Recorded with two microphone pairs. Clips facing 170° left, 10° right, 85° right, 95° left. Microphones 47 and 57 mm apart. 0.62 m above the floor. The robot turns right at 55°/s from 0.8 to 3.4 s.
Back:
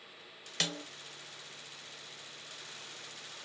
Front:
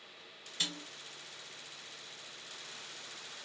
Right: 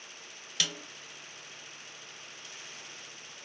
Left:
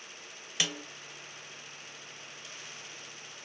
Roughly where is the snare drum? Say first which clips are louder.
Back 3 dB, left 1 dB; behind.